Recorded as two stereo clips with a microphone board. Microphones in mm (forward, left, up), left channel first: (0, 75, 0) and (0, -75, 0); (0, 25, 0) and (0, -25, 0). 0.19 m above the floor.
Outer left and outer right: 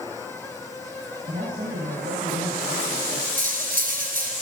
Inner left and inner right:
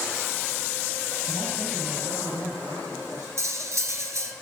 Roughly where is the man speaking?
Right.